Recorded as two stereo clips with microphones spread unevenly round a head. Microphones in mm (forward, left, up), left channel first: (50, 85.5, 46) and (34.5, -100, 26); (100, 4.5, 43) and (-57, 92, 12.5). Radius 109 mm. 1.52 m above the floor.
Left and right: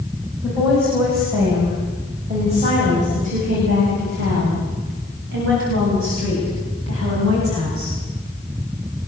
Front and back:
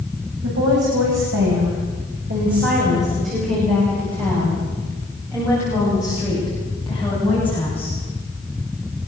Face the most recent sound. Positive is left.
turn(degrees=-110)